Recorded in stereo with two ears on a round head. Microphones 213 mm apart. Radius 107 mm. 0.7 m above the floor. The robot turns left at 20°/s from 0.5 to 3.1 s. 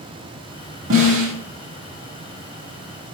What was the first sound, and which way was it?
A snare drum, 60° right (ahead or behind).